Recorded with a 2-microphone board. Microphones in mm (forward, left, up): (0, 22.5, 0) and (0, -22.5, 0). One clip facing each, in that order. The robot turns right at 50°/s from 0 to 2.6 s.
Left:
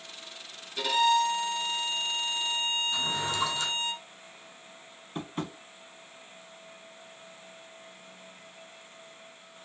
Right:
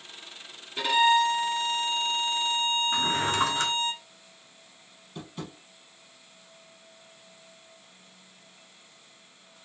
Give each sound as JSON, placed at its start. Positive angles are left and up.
{"t": 0.8, "sound": "a violin", "azimuth_deg": -155, "distance_m": 2.5}
{"t": 2.9, "sound": "a drawer", "side_deg": -50, "distance_m": 0.9}
{"t": 5.2, "sound": "tapping", "side_deg": 45, "distance_m": 0.7}